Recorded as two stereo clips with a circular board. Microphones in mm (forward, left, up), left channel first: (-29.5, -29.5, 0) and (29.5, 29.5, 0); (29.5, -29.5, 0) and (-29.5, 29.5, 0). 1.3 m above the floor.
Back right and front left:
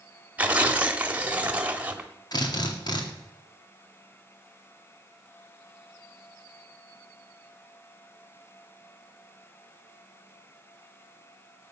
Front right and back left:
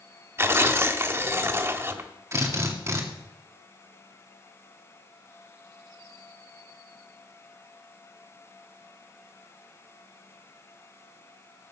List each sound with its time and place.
0.4 s tearing paper: 105° left, 1.2 m
2.3 s a drill: 170° right, 2 m